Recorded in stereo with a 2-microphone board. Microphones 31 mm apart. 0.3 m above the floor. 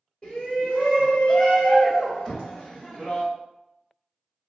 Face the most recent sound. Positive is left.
turn(degrees=10)  # may be behind; listen again after turning